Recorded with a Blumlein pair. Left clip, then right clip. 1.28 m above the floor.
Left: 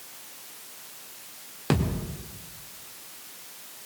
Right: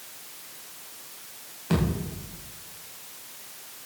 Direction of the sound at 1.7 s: 40° left.